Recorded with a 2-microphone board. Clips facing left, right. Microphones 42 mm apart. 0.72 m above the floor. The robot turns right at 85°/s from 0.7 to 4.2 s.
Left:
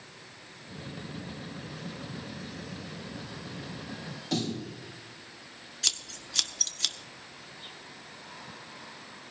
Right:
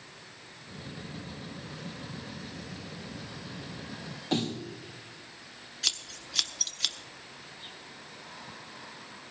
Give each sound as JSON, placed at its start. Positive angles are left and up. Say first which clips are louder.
{"t": 4.3, "sound": "a snare drum", "louder": "right 1 dB", "side_deg": -30, "distance_m": 3.5}
{"t": 5.8, "sound": "scissors", "louder": "even", "side_deg": -5, "distance_m": 1.2}